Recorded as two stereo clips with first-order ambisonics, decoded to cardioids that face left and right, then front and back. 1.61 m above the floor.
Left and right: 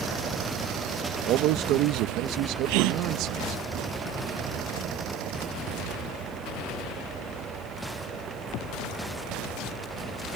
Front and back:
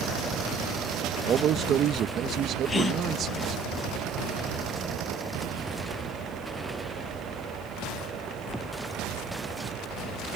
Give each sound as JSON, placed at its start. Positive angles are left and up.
{"t": 1.2, "sound": "a man speaking", "azimuth_deg": -125}
{"t": 2.7, "sound": "a gasp", "azimuth_deg": -75}